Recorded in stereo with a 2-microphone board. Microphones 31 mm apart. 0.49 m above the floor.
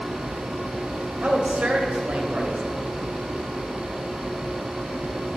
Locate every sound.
1.2 s a woman speaking: 55° right (ahead or behind), 2.5 m